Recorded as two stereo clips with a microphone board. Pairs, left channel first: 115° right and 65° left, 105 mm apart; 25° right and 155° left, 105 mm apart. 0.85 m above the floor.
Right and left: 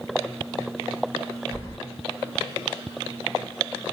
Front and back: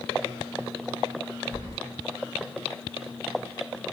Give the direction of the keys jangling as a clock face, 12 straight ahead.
6 o'clock.